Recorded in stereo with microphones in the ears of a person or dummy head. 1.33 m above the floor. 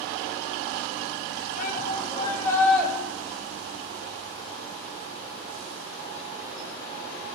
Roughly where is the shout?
Left.